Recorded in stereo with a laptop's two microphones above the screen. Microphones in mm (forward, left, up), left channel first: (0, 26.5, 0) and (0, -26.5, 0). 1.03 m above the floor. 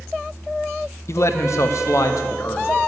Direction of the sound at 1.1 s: 60° left (ahead or behind).